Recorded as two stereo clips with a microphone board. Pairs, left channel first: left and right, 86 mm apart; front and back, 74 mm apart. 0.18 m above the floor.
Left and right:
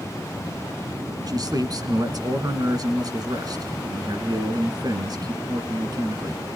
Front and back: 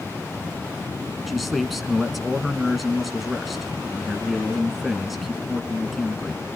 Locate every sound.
1.3 s a man speaking: 90° right, 1.5 m